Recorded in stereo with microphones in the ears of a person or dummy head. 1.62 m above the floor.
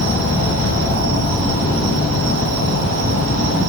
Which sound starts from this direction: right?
An insect, at 0.0 s.